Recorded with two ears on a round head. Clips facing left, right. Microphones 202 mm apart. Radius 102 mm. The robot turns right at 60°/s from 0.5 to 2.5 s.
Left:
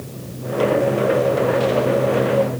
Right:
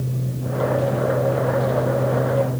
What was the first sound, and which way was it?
Only background noise.